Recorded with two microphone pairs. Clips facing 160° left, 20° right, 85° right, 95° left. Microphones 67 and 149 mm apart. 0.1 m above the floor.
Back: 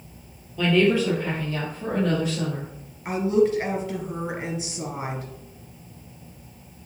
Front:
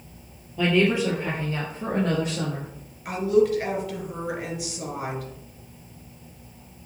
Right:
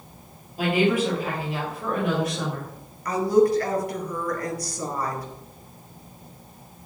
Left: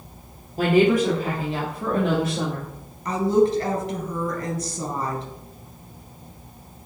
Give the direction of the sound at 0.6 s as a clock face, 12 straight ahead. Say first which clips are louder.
Back 1 dB, left 4 dB; 10 o'clock.